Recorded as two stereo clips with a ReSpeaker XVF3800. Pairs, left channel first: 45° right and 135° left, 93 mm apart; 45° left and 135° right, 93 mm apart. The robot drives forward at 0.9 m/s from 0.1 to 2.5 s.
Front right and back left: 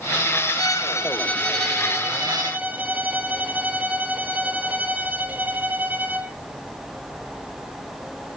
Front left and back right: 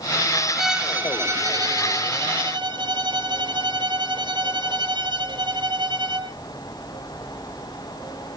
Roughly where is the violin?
Ahead right.